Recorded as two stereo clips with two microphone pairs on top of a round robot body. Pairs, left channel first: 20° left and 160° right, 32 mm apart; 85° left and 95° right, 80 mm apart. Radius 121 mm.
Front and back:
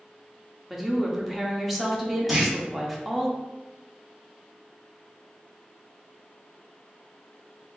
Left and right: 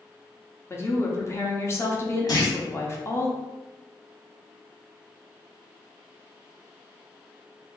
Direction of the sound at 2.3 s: 115° left.